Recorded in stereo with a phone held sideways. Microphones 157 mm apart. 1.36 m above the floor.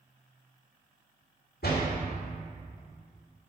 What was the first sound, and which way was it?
A door slam, 80° left.